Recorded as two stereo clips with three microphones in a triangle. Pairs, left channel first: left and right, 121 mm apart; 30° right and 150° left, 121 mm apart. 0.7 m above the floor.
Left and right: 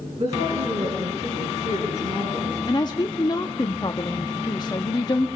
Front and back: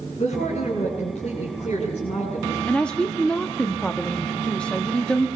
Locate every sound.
0.2 s a woman speaking: 60° right, 8 m; by 2.6 s 65° right, 9.5 m
2.7 s a woman speaking: 50° left, 1.0 m